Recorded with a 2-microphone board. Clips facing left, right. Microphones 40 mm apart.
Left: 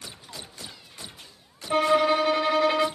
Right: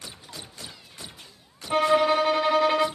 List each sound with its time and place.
1.7 s a violin: 10° right (ahead or behind), 0.8 m